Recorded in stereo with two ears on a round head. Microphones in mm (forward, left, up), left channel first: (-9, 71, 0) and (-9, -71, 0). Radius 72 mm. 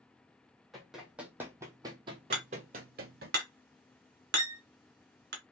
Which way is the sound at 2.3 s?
65° right (ahead or behind).